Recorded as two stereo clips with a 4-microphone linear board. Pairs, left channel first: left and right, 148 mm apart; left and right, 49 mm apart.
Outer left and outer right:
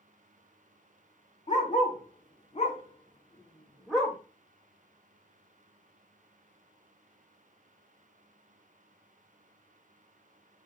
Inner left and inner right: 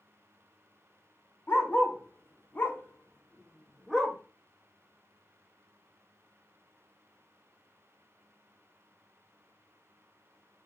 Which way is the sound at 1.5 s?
55° left (ahead or behind).